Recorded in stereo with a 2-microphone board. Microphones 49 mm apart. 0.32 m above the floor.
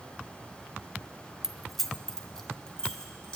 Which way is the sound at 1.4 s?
15° right (ahead or behind).